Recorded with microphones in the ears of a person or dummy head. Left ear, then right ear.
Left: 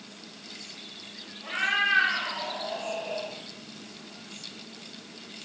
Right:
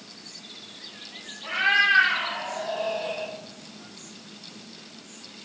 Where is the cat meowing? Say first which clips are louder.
Right 5 dB; 10° right (ahead or behind), 2.5 m; by 3.3 s 35° right (ahead or behind), 4 m.